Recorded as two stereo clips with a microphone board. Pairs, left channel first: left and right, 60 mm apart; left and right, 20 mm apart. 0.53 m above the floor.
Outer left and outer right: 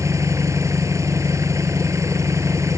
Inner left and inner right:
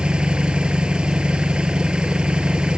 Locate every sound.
0.0 s an engine running: 55° right (ahead or behind)